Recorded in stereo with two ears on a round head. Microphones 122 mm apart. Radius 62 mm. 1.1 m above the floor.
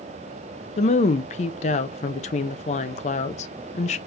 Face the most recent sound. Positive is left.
turn(degrees=50)  # may be behind; listen again after turning